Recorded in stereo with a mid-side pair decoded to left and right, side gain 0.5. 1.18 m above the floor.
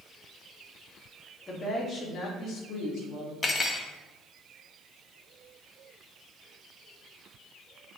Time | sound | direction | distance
1.5 | a woman speaking | 25° left | 1.7 m
3.4 | cutlery clinking | 30° left | 1.0 m